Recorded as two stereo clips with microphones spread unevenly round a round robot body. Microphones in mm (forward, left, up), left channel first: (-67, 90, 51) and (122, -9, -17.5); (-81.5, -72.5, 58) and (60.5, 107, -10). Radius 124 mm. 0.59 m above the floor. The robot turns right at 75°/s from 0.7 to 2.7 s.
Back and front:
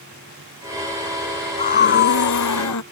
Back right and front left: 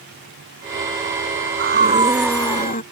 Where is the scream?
90° left; by 2.8 s 175° left.